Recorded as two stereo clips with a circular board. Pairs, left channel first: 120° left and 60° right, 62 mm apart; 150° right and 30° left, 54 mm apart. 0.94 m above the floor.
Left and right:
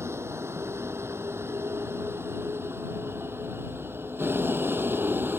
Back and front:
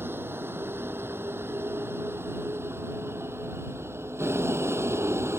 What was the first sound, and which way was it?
A vehicle, 15° right.